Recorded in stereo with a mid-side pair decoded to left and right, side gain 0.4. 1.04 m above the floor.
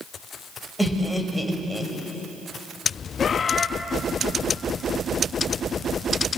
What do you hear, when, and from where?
0.8 s laughter: 5° left, 5 m; by 1.9 s 15° right, 5 m
3.2 s a bird: 50° left, 1.5 m